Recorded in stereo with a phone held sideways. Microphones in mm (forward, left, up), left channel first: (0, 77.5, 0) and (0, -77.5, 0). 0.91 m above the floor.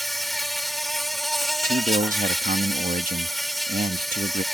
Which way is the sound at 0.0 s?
Centre (ahead or behind).